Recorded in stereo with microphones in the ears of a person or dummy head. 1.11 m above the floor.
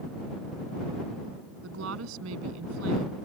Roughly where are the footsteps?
No footsteps in this recording.